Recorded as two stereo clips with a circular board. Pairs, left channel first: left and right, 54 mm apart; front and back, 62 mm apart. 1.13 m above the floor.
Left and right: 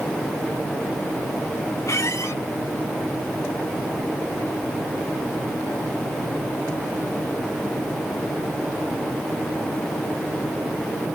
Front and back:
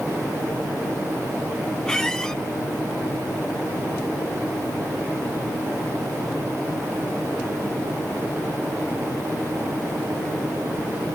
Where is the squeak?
80° left, 1.2 m.